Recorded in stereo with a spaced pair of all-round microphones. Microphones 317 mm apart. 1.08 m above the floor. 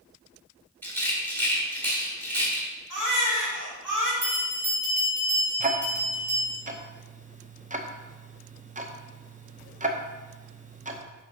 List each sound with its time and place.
0.8 s a rattle: 5° left (ahead or behind), 1.9 m
2.9 s a baby crying: 75° right (ahead or behind), 1.9 m
4.2 s a bell: 70° right (ahead or behind), 2.5 m
5.6 s ticking: 25° right (ahead or behind), 0.6 m